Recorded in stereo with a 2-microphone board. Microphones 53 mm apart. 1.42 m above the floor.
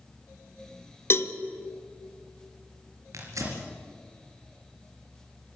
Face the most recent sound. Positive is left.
turn(degrees=-75)  # may be behind; listen again after turning